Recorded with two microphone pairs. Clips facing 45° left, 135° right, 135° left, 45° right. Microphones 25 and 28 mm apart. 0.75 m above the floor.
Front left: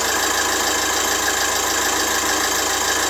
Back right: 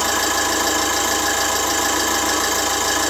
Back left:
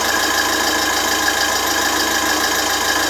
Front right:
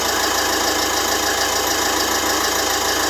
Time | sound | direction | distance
0.0 | an engine running | 135° left | 1.2 m